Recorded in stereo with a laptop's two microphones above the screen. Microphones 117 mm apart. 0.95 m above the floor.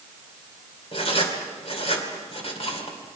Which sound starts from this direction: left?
Writing, at 0.9 s.